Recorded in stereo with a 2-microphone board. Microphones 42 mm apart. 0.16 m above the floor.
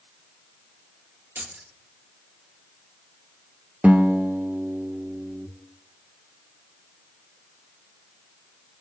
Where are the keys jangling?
55° right (ahead or behind), 2.5 m.